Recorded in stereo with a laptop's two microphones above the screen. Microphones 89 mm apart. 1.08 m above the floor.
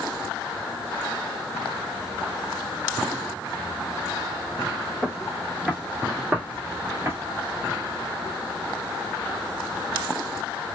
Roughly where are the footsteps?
Centre.